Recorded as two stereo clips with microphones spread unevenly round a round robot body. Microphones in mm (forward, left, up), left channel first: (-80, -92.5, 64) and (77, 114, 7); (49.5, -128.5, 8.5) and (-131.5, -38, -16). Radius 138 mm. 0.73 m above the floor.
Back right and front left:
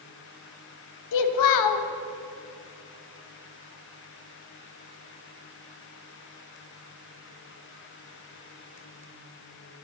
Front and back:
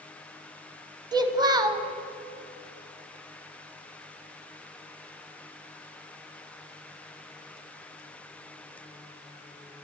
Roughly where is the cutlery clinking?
I don't hear cutlery clinking.